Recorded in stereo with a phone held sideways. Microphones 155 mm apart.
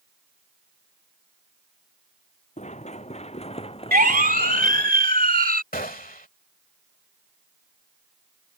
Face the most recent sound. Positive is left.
turn(degrees=70)  # may be behind; listen again after turning